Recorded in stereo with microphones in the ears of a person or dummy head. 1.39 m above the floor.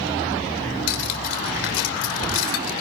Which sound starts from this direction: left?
Cutlery clinking, at 0.9 s.